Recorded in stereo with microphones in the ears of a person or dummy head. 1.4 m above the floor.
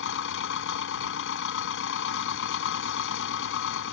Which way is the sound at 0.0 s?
65° left (ahead or behind).